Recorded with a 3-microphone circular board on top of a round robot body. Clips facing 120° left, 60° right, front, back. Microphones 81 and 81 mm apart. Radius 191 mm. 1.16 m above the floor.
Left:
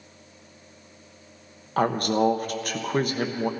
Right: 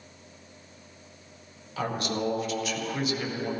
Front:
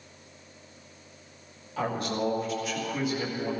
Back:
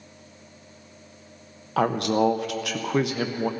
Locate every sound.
1.8 s a woman speaking: 160° left, 1.1 m